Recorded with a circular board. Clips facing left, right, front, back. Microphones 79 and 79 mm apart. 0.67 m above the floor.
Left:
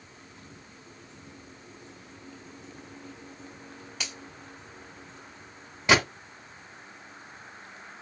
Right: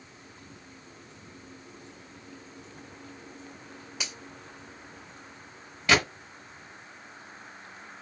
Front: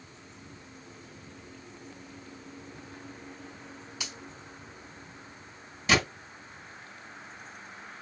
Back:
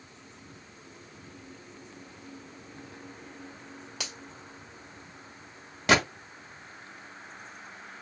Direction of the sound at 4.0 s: 175° right.